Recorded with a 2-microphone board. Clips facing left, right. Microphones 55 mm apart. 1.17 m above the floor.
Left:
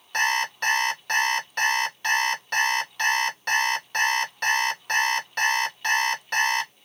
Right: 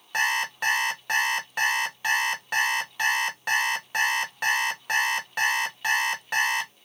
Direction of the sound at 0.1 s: 10° right (ahead or behind).